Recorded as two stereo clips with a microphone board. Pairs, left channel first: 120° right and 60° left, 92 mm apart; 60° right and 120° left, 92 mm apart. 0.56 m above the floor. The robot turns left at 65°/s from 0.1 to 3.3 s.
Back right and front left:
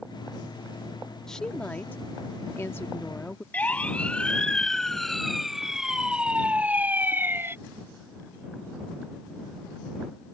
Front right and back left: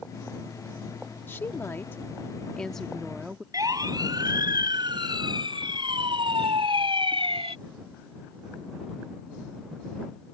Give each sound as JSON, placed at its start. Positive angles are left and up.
{"t": 1.3, "sound": "a woman speaking", "azimuth_deg": -40}
{"t": 3.5, "sound": "a siren", "azimuth_deg": 165}